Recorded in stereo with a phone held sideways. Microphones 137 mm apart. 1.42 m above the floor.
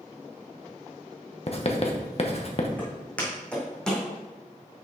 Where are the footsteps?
10° left (ahead or behind), 3.5 m; by 4.1 s 5° left (ahead or behind), 2.5 m.